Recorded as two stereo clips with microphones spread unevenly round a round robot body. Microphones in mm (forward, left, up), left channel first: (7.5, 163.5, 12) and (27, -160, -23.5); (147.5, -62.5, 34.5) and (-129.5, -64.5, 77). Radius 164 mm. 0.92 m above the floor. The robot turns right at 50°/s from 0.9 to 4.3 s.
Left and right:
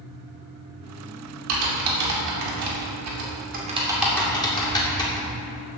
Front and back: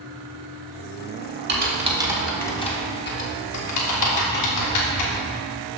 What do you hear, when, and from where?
1.5 s typing on a keyboard: 125° right, 2.5 m; by 5.3 s 15° left, 2.5 m